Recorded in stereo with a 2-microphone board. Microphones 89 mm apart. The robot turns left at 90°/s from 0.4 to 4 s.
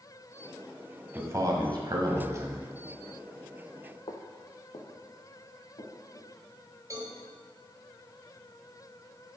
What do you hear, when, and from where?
1.1 s a man speaking: 30° right, 1.4 m; by 2.7 s 165° right, 1.4 m
4.1 s footsteps: 80° left, 1.3 m; by 6.3 s 85° left, 4 m
6.9 s a cowbell: 40° right (ahead or behind), 1.7 m